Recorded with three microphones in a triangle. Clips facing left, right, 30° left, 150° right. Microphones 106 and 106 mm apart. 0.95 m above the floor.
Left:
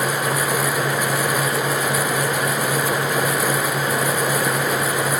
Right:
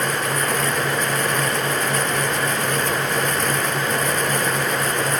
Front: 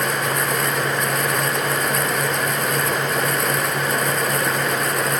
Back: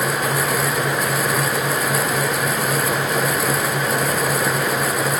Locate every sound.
Only background noise.